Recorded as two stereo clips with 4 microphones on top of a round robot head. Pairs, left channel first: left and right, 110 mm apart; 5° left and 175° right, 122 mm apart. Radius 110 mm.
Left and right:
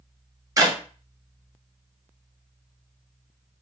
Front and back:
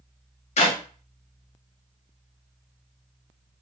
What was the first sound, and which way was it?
A clap, 30° right.